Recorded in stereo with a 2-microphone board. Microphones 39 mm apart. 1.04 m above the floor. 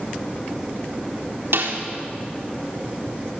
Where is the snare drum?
80° right, 3 m.